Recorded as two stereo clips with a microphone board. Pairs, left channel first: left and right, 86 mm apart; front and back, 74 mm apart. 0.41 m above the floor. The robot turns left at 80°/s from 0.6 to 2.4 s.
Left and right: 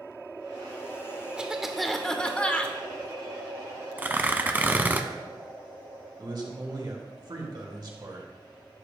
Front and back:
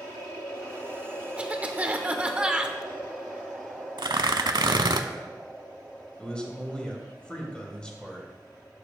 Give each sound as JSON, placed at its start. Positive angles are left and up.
{"t": 1.4, "sound": "a cough", "azimuth_deg": -145, "distance_m": 0.8}
{"t": 4.0, "sound": "tearing paper", "azimuth_deg": -160, "distance_m": 0.6}
{"t": 6.2, "sound": "a man speaking", "azimuth_deg": -75, "distance_m": 2.0}